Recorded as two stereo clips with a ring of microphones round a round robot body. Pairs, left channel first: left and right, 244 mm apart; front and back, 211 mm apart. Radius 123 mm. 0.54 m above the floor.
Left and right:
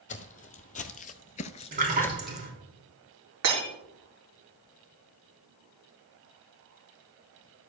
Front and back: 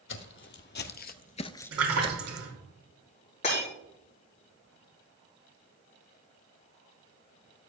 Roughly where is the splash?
Behind right.